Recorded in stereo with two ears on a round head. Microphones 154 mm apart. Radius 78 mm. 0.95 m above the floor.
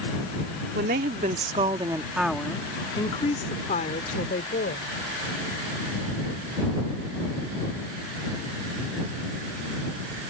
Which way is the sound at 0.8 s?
60° right (ahead or behind).